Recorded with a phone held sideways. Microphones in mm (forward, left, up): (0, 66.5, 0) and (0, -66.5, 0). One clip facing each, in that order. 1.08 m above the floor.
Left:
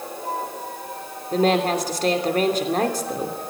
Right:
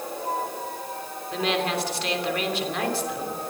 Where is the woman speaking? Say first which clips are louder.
Left 7 dB; 40° left (ahead or behind), 3 m.